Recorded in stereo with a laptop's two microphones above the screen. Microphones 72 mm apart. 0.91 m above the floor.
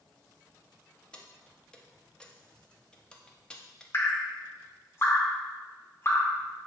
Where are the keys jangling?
15° left (ahead or behind), 0.7 m.